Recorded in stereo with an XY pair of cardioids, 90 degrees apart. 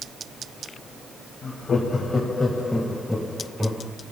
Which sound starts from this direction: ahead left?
Laughter, at 1.4 s.